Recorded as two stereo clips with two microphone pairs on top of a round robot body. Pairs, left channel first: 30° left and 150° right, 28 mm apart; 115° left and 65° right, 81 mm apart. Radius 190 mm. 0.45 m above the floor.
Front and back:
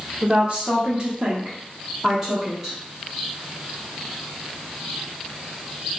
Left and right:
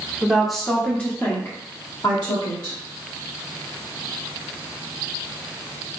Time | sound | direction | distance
0.2 | a woman speaking | 135° right | 1.3 m